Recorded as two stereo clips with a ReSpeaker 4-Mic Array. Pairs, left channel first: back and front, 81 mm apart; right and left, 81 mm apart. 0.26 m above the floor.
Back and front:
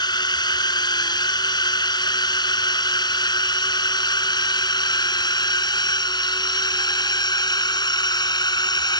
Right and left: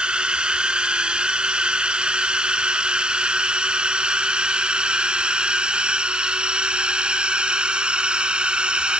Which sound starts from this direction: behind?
A drone, at 0.0 s.